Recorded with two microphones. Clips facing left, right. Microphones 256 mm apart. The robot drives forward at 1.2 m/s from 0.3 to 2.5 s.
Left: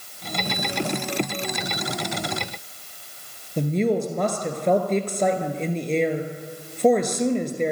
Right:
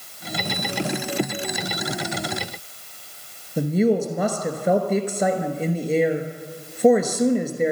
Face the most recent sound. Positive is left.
turn(degrees=-5)  # may be behind; listen again after turning